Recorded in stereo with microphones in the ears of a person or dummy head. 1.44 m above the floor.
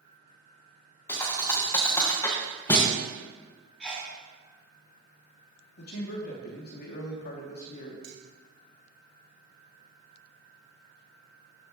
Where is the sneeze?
5° left (ahead or behind), 2.5 m.